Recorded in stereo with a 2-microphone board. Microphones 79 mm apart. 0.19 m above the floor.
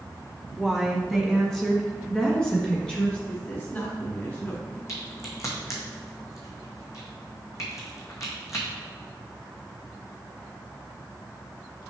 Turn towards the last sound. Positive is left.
turn(degrees=45)  # may be behind; listen again after turning